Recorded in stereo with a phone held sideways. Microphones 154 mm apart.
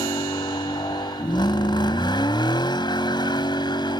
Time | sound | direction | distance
0.0 | a vehicle | 30° left (ahead or behind) | ?